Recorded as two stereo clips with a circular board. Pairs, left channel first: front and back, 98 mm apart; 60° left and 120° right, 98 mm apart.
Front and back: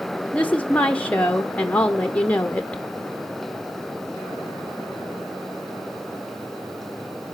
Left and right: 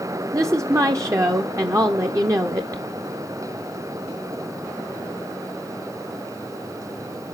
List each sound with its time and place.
0.3 s a woman speaking: 70° right, 0.6 m